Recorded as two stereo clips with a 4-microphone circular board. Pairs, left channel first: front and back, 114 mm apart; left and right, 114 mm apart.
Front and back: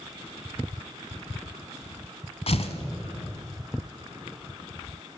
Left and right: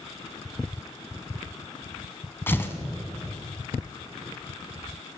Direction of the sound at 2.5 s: 20° left.